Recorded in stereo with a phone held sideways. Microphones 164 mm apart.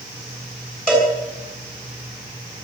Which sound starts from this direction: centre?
A cowbell, at 0.9 s.